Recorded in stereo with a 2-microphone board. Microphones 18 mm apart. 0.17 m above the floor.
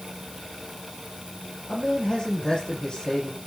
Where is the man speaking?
55° left (ahead or behind), 7 m.